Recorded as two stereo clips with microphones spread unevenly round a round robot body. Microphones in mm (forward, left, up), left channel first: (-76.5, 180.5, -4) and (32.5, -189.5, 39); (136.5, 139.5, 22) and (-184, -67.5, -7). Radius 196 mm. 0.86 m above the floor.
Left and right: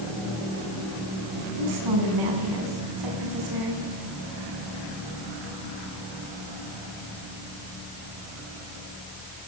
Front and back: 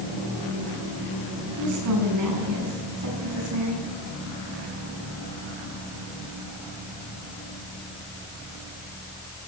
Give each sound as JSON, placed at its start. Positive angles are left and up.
{"t": 1.6, "sound": "a woman speaking", "azimuth_deg": -100, "distance_m": 7.0}